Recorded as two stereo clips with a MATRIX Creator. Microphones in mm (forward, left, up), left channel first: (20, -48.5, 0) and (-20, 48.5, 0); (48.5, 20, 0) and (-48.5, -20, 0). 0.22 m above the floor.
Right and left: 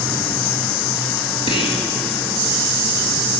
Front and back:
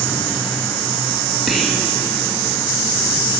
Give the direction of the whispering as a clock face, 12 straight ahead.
2 o'clock.